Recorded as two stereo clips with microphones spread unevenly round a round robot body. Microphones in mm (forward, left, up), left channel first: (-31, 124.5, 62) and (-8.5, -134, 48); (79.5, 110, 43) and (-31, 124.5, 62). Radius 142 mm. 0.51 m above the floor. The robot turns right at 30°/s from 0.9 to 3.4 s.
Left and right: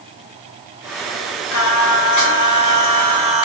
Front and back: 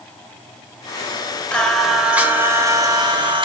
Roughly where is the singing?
Left.